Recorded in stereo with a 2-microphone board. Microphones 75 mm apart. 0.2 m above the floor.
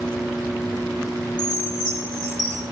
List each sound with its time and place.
1.4 s a chime: 65° left (ahead or behind), 3.5 m